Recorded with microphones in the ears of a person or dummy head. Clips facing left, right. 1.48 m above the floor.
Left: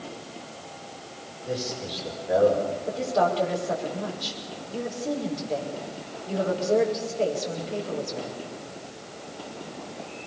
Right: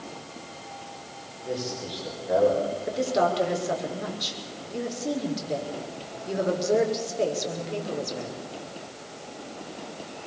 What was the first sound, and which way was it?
A man speaking, 5° right (ahead or behind).